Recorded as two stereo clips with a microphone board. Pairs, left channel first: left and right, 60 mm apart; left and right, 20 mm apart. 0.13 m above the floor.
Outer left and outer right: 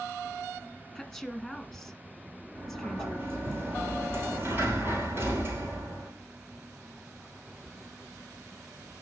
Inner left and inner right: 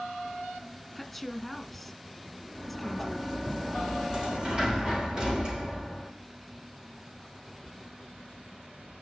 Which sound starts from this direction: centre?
A woman speaking, at 0.9 s.